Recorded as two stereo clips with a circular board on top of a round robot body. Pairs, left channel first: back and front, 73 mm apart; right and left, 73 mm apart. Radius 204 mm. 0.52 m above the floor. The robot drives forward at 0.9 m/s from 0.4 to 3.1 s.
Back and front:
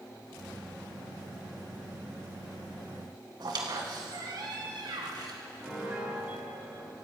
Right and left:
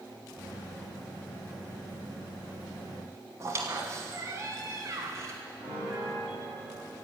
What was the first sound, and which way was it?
A squeak, 35° left.